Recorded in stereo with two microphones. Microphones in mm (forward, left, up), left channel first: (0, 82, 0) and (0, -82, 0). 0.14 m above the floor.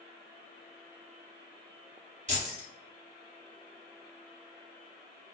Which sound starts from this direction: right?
Keys jangling, at 2.3 s.